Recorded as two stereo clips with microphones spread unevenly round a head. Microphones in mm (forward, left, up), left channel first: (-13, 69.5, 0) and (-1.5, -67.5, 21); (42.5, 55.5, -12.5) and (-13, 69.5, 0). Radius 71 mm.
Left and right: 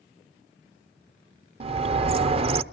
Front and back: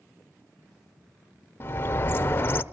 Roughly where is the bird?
Ahead right.